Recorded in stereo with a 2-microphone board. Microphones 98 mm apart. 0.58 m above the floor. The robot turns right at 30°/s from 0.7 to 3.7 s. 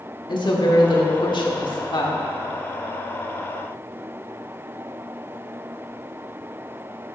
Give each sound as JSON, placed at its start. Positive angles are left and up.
{"t": 0.3, "sound": "a woman speaking", "azimuth_deg": 75, "distance_m": 1.4}